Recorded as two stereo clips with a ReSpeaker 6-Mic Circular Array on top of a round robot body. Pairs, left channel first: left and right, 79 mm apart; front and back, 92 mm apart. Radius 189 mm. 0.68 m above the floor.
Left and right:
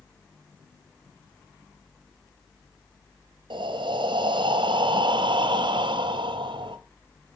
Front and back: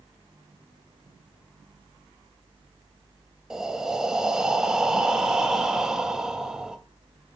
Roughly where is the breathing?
Right.